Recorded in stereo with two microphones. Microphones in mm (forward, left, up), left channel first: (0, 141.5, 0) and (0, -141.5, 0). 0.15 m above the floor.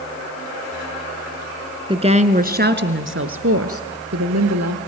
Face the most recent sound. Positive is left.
turn(degrees=-65)  # may be behind; listen again after turning